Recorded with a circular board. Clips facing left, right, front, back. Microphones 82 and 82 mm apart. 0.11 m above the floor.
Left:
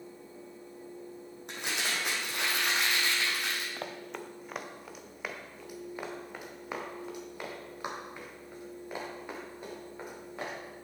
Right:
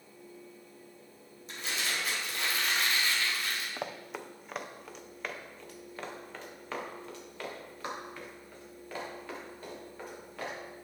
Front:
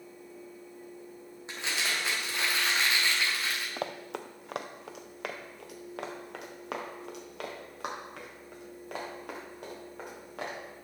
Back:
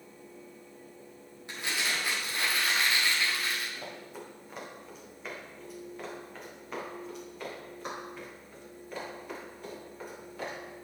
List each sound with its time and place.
1.5 s crumpling: 70° left, 2.5 m
3.8 s running footsteps: 15° right, 0.7 m; by 10.6 s 20° left, 4 m